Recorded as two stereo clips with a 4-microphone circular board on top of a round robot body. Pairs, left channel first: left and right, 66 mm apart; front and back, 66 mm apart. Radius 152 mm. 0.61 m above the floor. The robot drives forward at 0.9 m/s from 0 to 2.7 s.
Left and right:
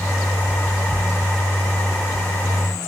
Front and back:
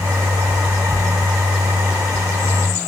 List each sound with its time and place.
Only background noise.